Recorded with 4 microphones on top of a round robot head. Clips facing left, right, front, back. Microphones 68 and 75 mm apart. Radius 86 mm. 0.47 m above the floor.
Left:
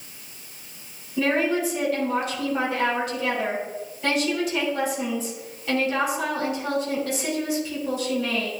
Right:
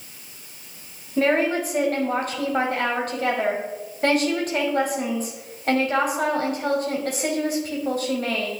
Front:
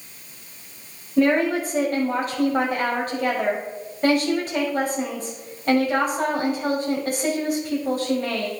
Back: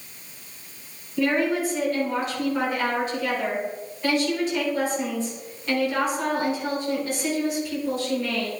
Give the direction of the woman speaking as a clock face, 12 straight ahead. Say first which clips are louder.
Right 2 dB, front 4 dB; 2 o'clock.